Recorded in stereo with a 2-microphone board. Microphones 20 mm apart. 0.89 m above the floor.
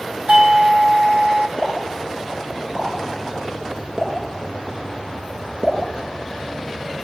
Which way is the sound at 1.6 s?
40° right (ahead or behind).